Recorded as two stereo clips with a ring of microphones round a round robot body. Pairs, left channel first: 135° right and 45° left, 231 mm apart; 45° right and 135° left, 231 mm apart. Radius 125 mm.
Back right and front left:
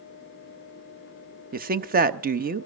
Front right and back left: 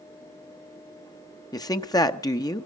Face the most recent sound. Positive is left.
turn(degrees=20)